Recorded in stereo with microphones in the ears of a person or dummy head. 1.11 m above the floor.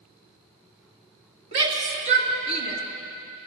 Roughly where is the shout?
Right.